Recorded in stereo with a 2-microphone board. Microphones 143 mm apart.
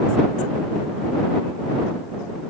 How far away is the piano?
No piano in this recording.